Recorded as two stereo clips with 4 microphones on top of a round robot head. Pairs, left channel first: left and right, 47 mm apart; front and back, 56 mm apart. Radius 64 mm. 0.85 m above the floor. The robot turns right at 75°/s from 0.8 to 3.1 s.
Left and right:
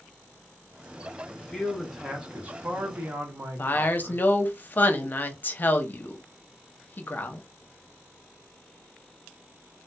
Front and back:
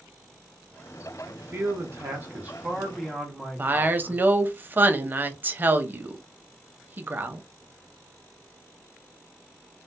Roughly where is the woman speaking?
Behind left.